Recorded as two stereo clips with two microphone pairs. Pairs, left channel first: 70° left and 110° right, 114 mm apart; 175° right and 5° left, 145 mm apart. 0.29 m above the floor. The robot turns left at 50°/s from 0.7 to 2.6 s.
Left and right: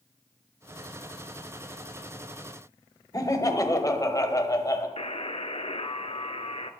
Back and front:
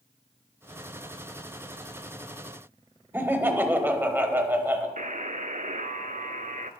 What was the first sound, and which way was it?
Laughter, 65° left.